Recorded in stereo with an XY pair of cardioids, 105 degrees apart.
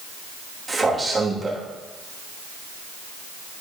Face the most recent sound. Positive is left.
turn(degrees=-20)